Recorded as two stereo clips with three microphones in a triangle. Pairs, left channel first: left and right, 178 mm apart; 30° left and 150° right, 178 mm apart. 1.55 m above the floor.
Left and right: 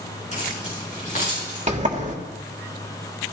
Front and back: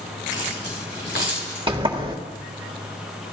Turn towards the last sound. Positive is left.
turn(degrees=-105)